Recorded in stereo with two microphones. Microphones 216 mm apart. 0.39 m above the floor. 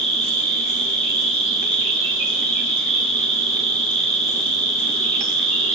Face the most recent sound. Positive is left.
turn(degrees=70)  # may be behind; listen again after turning